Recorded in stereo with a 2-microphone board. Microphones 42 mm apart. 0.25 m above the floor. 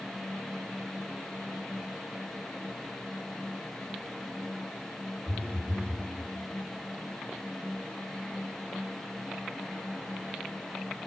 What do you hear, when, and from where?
5.3 s a phone buzzing: 70° right (ahead or behind), 0.8 m